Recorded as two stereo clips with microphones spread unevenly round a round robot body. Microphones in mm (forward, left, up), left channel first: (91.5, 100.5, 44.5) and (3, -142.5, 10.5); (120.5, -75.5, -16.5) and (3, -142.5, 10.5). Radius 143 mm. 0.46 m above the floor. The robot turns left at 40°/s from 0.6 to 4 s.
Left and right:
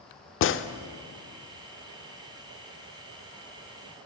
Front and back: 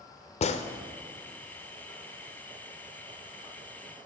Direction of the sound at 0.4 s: 30° left.